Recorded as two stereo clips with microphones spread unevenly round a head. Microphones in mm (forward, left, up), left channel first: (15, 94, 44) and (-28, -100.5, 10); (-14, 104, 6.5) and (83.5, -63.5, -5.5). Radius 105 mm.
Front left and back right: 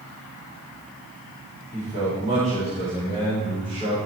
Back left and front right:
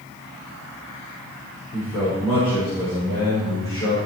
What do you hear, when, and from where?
1.7 s a man speaking: 160° right, 7.5 m; by 4.0 s 170° right, 8.5 m